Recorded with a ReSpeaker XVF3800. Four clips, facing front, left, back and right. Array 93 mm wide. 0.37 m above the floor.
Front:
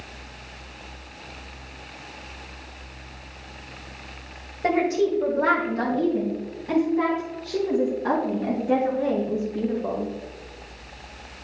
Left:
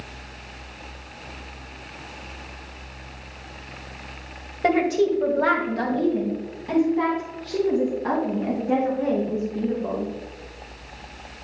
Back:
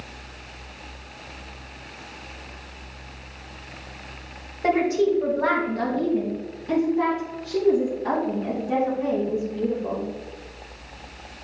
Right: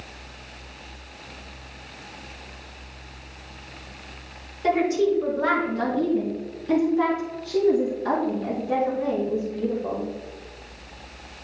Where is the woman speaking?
95° left, 2.0 m; by 10.1 s 55° left, 6 m.